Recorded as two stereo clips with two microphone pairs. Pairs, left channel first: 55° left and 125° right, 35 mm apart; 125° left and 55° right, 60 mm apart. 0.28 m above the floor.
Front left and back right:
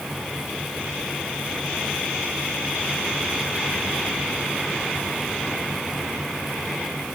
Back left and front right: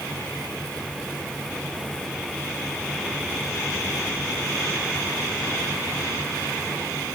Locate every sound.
Only background noise.